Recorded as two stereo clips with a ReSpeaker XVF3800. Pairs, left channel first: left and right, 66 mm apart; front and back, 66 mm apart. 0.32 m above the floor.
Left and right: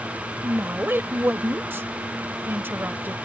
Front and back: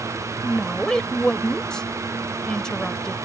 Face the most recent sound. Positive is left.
turn(degrees=-70)